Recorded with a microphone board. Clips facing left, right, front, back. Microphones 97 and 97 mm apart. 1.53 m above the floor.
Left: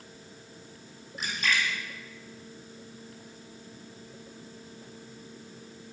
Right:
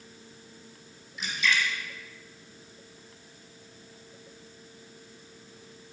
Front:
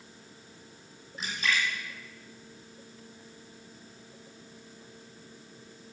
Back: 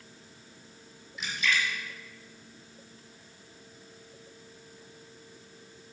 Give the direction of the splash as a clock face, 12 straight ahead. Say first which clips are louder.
Right 1 dB, even; 10 o'clock.